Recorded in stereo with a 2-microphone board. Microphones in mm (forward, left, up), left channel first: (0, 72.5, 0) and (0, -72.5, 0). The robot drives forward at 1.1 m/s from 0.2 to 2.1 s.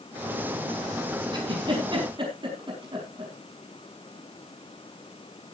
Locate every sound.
1.3 s a giggle: 35° right (ahead or behind), 5.5 m; by 3.3 s 40° right (ahead or behind), 4.5 m